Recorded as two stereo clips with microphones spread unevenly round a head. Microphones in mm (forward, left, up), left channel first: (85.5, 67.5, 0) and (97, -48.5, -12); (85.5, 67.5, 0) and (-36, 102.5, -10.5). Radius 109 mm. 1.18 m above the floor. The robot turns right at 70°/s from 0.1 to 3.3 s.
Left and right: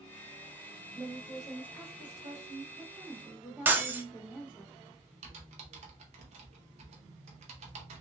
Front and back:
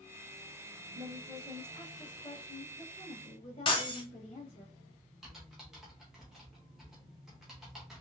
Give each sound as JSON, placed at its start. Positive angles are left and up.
{"t": 0.9, "sound": "a woman speaking", "azimuth_deg": -150, "distance_m": 1.5}
{"t": 3.6, "sound": "breaking glass", "azimuth_deg": -10, "distance_m": 0.8}
{"t": 5.2, "sound": "typing on a keyboard", "azimuth_deg": -110, "distance_m": 0.6}